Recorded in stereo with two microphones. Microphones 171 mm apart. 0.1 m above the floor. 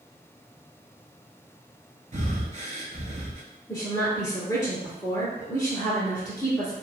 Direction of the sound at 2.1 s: 45° right (ahead or behind).